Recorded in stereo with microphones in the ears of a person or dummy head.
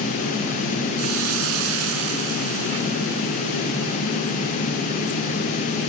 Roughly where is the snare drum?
I don't hear a snare drum.